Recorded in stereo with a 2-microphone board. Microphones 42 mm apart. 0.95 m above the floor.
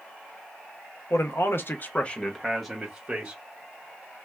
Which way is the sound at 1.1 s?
75° left (ahead or behind).